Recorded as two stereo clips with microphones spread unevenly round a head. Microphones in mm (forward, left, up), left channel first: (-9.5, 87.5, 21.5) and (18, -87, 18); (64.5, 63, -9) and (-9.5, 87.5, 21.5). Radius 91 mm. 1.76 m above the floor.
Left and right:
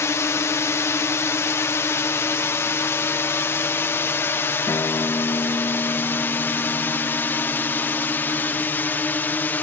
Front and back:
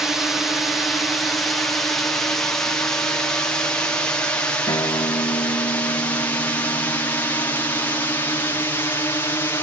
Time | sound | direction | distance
0.0 | a drone | 35° left | ?
4.7 | a guitar | 25° left | ?